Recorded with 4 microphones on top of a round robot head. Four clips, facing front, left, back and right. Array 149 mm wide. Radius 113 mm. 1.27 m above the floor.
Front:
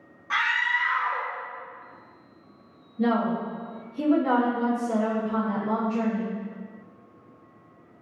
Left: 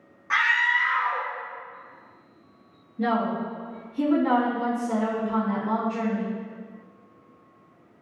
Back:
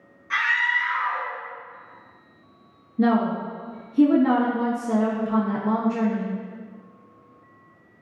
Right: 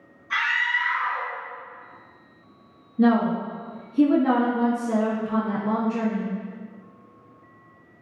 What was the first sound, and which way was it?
A scream, 50° left.